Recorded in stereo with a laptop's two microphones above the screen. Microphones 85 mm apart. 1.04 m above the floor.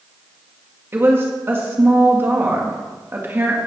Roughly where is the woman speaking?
Right.